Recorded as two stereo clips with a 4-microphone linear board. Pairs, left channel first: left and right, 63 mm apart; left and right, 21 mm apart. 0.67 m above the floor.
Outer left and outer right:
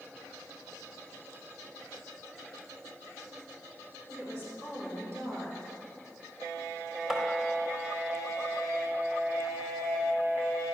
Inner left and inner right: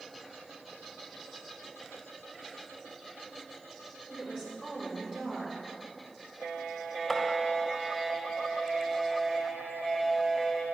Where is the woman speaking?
45° right (ahead or behind), 3.5 m.